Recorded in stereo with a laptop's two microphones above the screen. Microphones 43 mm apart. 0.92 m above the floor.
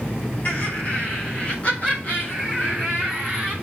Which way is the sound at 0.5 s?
50° left (ahead or behind).